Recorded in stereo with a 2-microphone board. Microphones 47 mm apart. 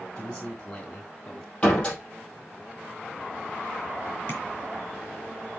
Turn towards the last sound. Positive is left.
turn(degrees=35)  # may be behind; listen again after turning